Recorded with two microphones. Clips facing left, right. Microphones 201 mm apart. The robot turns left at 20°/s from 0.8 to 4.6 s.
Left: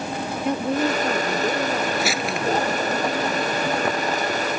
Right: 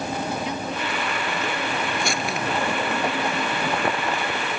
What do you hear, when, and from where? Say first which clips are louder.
0.5 s a woman speaking: left 7 dB; 50° left; by 2.7 s 15° left
2.0 s crumpling: left 2 dB; 5° left (ahead or behind); by 2.4 s 5° right (ahead or behind)